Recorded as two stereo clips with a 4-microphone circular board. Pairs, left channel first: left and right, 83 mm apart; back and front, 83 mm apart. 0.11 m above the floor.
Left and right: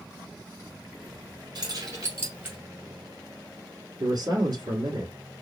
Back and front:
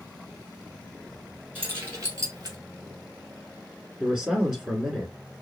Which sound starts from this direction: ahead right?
Keys jangling, at 1.6 s.